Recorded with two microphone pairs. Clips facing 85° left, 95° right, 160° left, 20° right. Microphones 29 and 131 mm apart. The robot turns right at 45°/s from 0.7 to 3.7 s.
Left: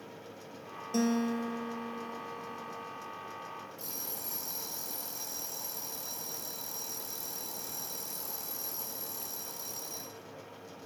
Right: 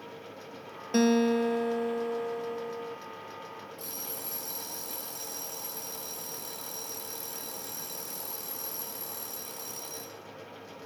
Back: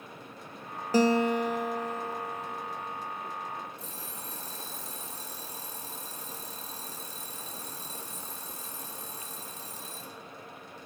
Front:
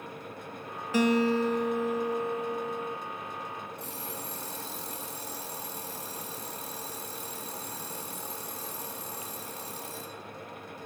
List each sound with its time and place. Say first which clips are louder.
0.9 s a guitar: right 6 dB, back 1 dB; 150° right, 1.5 m; by 3.0 s 55° right, 1.5 m
3.8 s an alarm clock: right 2 dB, front 4 dB; 50° right, 4.5 m